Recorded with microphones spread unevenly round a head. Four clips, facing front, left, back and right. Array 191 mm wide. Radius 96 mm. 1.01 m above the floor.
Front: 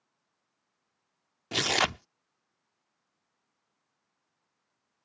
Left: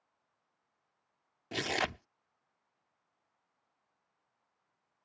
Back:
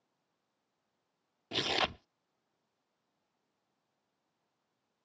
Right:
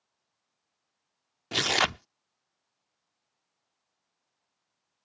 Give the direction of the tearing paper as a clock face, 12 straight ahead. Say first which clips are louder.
Right 6 dB, front 5 dB; 2 o'clock.